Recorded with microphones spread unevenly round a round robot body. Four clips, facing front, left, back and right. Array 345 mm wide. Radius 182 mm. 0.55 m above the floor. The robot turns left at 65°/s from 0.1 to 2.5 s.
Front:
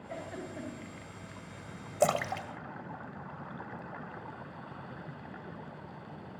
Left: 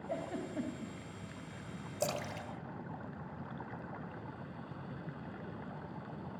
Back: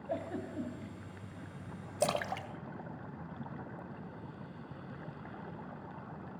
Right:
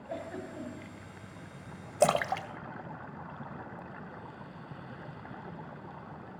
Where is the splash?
50° right, 1.6 m; by 3.8 s 85° right, 1.6 m.